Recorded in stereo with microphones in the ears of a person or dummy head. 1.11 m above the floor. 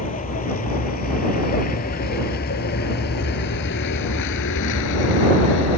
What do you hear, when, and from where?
0.0 s a vehicle: 30° left (ahead or behind); by 5.8 s 75° left (ahead or behind)